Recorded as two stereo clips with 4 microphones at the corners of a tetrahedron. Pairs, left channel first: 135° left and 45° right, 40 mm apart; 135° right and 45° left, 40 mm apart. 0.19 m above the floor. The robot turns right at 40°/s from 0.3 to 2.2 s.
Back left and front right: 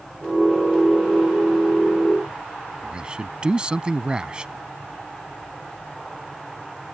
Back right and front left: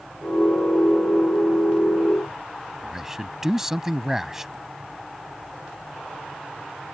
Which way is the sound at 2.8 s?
20° right.